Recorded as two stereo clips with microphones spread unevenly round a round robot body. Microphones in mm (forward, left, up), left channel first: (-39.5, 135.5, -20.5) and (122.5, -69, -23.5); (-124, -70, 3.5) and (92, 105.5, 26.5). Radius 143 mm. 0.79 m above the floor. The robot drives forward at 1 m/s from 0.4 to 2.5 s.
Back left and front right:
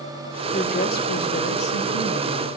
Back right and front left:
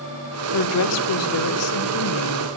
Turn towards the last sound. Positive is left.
turn(degrees=-175)